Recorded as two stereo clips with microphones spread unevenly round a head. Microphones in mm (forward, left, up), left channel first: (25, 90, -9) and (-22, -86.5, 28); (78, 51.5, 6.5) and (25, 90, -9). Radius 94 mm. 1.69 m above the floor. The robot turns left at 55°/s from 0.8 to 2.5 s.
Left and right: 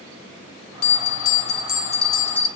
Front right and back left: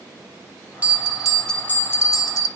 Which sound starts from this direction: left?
A bell, at 0.8 s.